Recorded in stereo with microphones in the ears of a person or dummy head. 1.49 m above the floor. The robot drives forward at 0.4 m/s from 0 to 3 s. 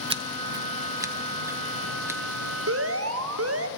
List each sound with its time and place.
0.1 s scissors: 35° right (ahead or behind), 0.6 m; by 2.2 s 15° right (ahead or behind), 1.4 m
2.7 s an alarm: 60° right (ahead or behind), 1.7 m